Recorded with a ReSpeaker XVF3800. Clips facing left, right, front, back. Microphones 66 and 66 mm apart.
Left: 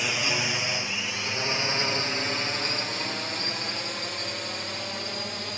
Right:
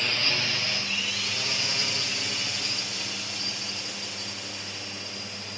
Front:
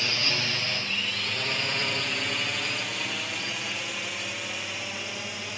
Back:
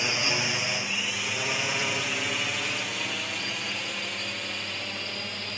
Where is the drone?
145° left; by 5.6 s 80° left.